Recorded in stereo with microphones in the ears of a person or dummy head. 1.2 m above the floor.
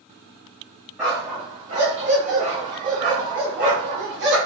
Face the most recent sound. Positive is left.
turn(degrees=-60)  # may be behind; listen again after turning